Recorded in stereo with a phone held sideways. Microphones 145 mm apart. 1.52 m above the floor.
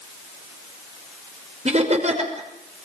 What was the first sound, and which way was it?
Laughter, 50° right (ahead or behind).